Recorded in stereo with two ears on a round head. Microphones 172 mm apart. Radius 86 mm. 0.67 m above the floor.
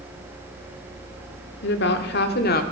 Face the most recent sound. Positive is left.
turn(degrees=50)  # may be behind; listen again after turning